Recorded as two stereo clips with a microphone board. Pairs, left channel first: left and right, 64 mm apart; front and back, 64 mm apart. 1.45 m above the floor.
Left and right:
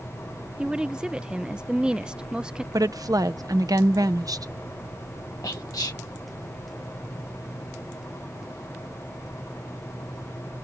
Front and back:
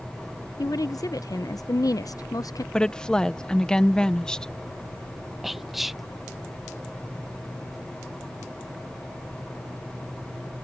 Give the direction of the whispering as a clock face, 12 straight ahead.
9 o'clock.